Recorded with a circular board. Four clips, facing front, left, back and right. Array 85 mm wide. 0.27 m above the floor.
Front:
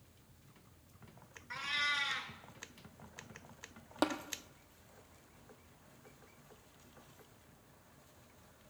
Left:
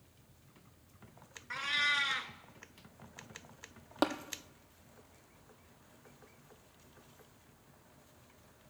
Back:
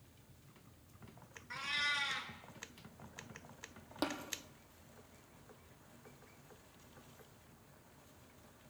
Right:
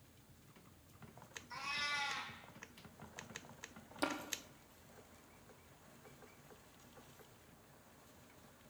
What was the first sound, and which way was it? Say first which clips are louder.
A cat meowing: left 8 dB, front 2 dB; 80° left.